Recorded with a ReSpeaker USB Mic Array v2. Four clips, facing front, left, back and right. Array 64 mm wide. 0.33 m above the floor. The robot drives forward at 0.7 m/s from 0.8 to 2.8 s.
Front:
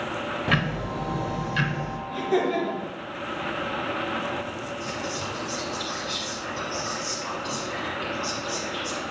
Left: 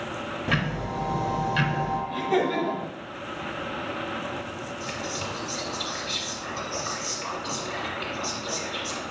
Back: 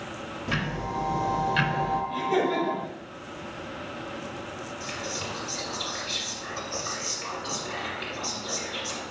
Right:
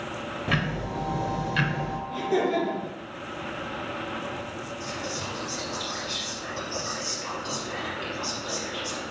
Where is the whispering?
120° left, 1.3 m.